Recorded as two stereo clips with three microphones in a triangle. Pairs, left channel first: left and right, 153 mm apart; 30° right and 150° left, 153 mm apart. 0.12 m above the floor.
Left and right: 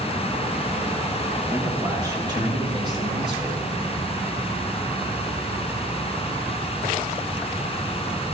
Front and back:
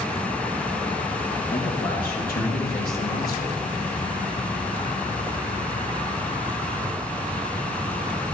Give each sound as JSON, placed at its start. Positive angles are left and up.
{"t": 1.5, "sound": "a man speaking", "azimuth_deg": -20, "distance_m": 3.5}